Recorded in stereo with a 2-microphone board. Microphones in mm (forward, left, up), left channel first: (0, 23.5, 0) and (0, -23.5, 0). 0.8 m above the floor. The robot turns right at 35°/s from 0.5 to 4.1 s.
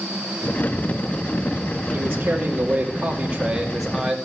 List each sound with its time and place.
1.9 s a man speaking: 80° right, 2.0 m; by 4.2 s 5° right, 2.0 m